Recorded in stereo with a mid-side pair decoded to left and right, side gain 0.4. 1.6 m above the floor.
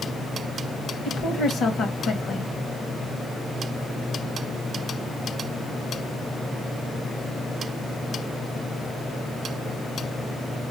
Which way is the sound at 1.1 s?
70° left.